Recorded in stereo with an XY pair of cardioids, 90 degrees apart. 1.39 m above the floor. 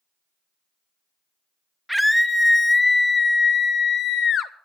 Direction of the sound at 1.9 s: Straight ahead.